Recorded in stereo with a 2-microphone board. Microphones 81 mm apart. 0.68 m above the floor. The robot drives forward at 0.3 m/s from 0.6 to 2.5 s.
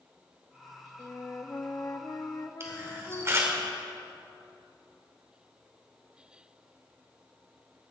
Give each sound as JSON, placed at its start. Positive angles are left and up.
{"t": 1.0, "sound": "a flute", "side_deg": 35, "distance_m": 0.7}
{"t": 2.6, "sound": "a camera shutter", "side_deg": -35, "distance_m": 2.5}